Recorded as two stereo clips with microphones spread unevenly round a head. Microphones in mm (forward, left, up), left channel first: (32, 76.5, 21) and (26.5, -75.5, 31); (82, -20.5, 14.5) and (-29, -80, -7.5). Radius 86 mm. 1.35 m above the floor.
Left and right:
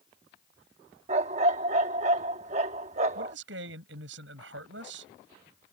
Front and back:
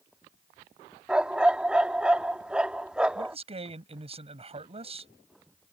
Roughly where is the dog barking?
Ahead right.